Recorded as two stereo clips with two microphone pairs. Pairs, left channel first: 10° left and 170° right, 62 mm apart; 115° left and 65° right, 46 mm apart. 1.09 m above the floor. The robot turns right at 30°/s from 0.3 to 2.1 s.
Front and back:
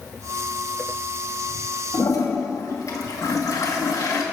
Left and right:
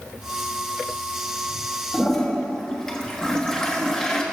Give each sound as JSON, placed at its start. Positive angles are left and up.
{"t": 1.9, "sound": "a toilet flushing", "azimuth_deg": 35, "distance_m": 1.3}